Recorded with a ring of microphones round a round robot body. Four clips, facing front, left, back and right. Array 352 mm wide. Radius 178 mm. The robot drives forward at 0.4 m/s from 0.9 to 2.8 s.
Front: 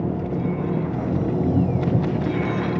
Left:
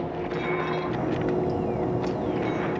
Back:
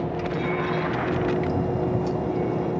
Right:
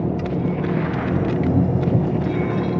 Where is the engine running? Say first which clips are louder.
Right 6 dB, front 2 dB; 55° right.